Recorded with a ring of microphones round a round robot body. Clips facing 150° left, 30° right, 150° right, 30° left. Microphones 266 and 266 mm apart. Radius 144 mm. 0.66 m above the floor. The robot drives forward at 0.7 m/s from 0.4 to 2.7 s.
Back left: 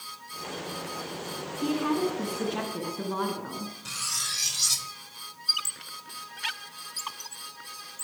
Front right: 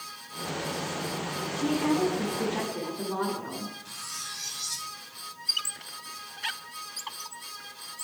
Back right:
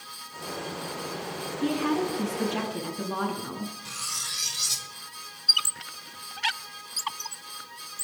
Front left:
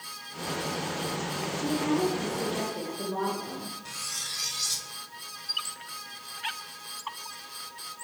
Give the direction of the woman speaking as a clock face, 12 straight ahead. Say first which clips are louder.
Front right 1 dB, back right 1 dB; 5 o'clock.